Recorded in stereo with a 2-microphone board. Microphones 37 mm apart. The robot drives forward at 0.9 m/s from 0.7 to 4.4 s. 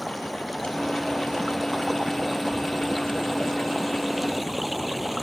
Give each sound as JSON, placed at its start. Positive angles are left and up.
{"t": 0.0, "sound": "running water", "side_deg": -5}